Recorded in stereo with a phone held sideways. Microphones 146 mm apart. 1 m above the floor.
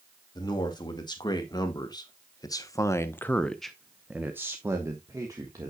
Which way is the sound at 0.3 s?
30° left (ahead or behind).